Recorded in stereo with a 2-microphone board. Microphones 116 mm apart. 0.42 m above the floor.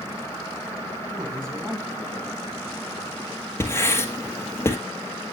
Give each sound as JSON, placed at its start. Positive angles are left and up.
{"t": 1.1, "sound": "a man speaking", "side_deg": -35, "distance_m": 3.0}
{"t": 3.6, "sound": "writing", "side_deg": 20, "distance_m": 1.6}